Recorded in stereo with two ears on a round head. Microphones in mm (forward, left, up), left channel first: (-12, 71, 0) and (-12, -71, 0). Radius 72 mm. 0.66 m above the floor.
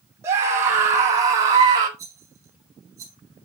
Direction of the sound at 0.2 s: 15° right (ahead or behind).